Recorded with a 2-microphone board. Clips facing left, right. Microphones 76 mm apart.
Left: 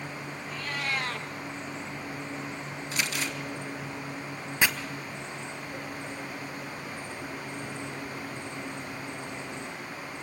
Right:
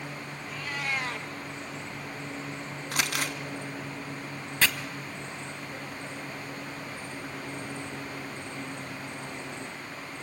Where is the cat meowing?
5° right (ahead or behind), 2 m.